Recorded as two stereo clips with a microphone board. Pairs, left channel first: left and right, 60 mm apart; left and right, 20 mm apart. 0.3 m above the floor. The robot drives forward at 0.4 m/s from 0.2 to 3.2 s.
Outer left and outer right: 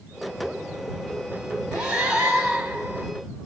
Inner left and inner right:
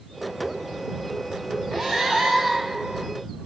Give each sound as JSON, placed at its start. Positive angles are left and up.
{"t": 1.7, "sound": "breathing", "side_deg": -15, "distance_m": 2.0}